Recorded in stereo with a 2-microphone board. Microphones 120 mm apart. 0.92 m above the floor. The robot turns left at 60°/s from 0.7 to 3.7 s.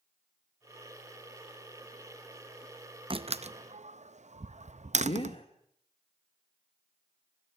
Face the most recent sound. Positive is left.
turn(degrees=55)  # may be behind; listen again after turning